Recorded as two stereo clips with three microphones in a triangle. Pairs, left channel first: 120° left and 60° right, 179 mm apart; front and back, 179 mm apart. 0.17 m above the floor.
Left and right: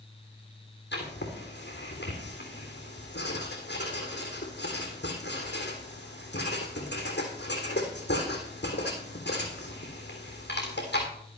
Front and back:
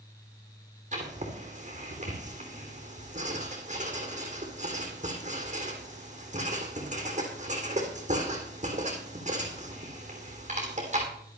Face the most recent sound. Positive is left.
turn(degrees=135)